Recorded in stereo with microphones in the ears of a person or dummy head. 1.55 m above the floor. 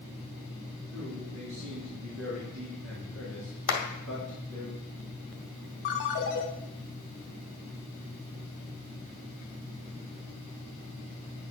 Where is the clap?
70° left (ahead or behind), 1.9 m.